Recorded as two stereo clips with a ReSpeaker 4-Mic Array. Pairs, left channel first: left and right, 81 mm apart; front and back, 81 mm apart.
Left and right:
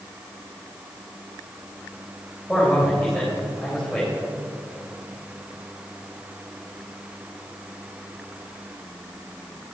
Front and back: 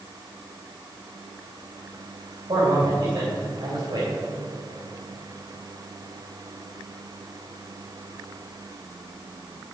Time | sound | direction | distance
2.5 | a man speaking | straight behind | 3 m